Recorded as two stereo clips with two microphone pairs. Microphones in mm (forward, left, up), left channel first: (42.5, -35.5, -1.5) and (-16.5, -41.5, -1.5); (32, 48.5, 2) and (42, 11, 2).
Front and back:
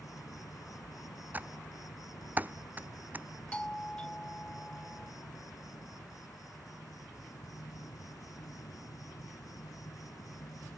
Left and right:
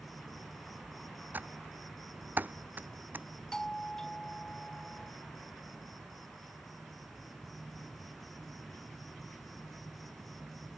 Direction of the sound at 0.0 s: 15° left.